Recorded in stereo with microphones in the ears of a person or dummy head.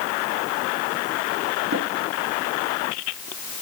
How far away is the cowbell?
No cowbell in this recording.